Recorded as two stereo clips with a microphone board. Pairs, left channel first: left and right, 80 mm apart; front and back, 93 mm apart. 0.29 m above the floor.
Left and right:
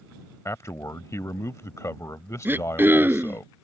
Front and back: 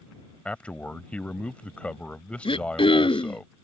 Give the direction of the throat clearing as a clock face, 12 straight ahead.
1 o'clock.